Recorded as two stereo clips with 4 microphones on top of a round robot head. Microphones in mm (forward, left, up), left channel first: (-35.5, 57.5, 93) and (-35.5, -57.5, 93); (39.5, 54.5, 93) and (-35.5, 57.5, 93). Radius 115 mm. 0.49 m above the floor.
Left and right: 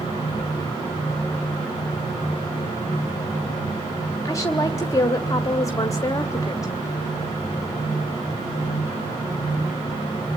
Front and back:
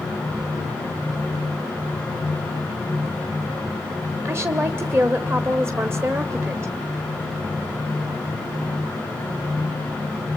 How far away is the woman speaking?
About 1.4 m.